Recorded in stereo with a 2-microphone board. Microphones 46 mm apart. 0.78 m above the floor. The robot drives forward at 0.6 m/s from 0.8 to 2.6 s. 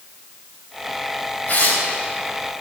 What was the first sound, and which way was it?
Tearing paper, 35° left (ahead or behind).